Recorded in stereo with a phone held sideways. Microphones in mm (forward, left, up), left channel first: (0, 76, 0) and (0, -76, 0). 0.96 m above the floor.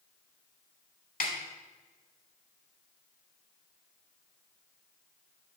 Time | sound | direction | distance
1.2 | a snare drum | 70° left (ahead or behind) | 1.9 m